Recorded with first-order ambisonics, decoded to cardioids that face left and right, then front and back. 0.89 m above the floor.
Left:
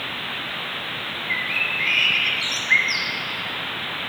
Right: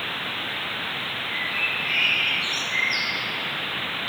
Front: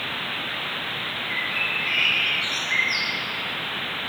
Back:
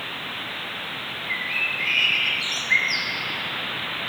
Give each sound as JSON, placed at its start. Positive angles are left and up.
{"t": 1.3, "sound": "a bird", "azimuth_deg": 105, "distance_m": 3.0}